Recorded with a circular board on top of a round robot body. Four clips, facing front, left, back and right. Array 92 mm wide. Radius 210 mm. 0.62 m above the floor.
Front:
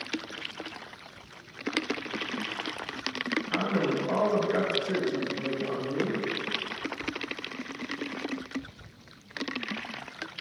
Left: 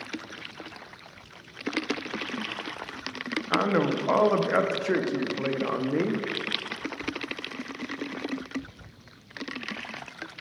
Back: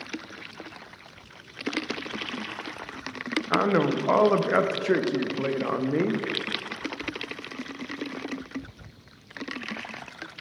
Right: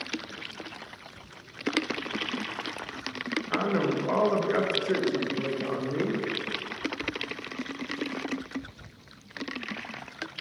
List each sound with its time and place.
3.5 s a man speaking: 155° left, 0.7 m